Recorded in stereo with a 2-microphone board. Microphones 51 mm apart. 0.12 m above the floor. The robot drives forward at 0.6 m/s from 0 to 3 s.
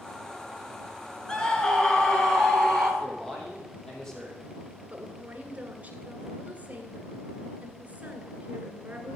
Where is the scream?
15° left (ahead or behind), 1.5 m; by 2.9 s 10° left (ahead or behind), 2 m.